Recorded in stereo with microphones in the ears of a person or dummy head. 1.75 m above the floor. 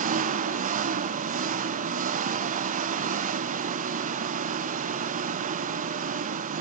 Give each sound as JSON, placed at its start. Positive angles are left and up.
{"t": 0.0, "sound": "an engine running", "side_deg": -40, "distance_m": 1.0}